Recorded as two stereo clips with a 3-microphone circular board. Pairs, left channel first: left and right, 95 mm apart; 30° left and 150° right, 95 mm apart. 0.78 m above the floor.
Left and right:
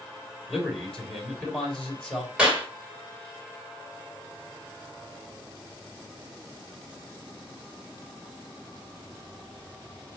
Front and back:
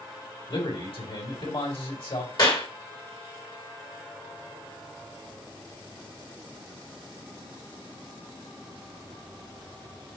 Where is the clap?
10° right, 2 m.